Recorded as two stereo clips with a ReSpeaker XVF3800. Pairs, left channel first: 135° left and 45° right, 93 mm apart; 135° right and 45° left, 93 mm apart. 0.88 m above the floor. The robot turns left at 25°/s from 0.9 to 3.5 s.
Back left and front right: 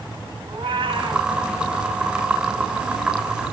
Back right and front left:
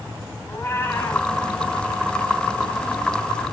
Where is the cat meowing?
75° right, 3 m; by 1.3 s 80° right, 3 m.